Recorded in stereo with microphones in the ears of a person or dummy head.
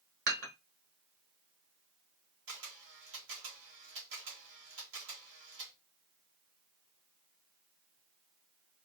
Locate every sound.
0.3 s dishes clattering: 50° right (ahead or behind), 1.7 m
2.5 s a camera shutter: 80° right, 1.8 m